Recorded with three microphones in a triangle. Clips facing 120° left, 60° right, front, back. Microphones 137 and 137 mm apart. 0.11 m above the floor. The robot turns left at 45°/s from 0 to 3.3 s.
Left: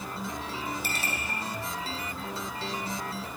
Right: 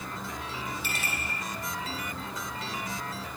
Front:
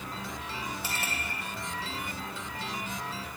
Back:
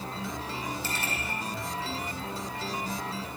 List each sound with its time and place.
0.8 s a clink: 75° left, 3 m; by 1.1 s 65° left, 3 m